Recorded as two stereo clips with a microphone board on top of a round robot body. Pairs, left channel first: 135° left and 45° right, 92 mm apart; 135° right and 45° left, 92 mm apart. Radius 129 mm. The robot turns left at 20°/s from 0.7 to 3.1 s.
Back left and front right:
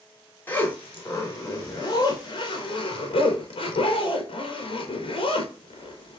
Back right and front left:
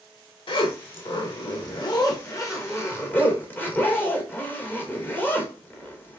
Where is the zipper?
155° right, 1.4 m; by 6.2 s 155° left, 1.4 m.